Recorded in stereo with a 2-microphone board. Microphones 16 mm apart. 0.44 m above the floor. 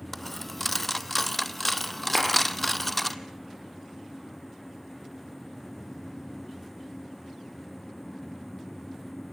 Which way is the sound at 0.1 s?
15° left (ahead or behind).